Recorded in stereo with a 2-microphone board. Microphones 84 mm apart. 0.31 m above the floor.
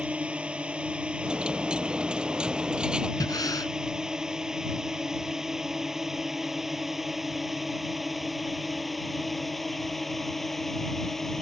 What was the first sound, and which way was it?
A drone, 15° right (ahead or behind).